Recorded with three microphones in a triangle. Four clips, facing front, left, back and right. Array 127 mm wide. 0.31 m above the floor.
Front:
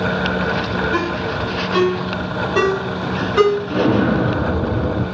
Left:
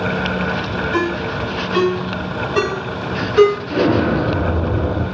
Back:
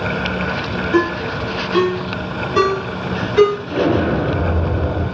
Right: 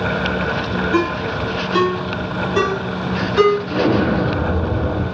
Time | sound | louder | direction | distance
0.9 | a ringtone | right 1 dB, back 3 dB | 30° right | 2.5 m
3.7 | an explosion | left 1 dB, front 1 dB | 15° left | 2.5 m